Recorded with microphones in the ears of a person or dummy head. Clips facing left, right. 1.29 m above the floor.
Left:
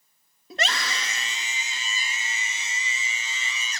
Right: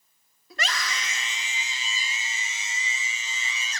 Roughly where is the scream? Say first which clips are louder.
Left 3 dB; left.